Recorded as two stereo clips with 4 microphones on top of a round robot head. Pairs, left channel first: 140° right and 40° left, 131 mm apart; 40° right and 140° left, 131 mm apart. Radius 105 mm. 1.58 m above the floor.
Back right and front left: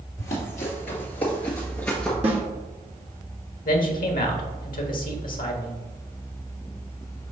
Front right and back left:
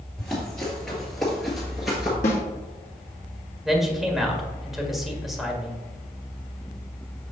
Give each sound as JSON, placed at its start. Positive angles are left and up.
{"t": 0.2, "sound": "running footsteps", "azimuth_deg": -120, "distance_m": 2.0}
{"t": 2.2, "sound": "a snare drum", "azimuth_deg": -5, "distance_m": 1.3}
{"t": 3.6, "sound": "a man speaking", "azimuth_deg": -130, "distance_m": 1.4}